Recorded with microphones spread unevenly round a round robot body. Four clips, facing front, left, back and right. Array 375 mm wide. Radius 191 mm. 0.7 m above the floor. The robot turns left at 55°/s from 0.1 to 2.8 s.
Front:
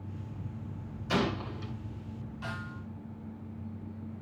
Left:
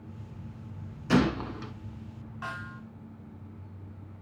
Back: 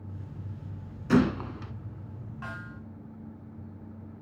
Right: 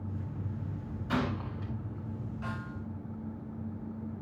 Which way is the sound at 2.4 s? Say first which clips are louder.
Left 4 dB, even; 110° left.